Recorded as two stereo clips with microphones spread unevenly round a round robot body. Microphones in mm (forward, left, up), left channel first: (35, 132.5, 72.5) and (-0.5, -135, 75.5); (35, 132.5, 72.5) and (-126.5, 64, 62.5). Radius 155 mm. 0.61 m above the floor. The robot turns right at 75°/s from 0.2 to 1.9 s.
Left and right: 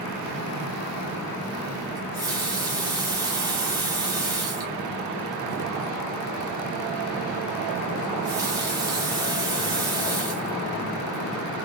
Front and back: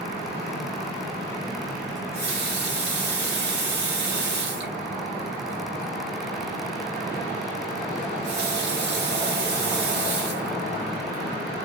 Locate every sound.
2.0 s a running tap: 175° right, 1.5 m